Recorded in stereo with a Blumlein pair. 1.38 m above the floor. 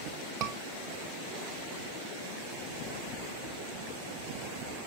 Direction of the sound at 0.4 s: 30° right.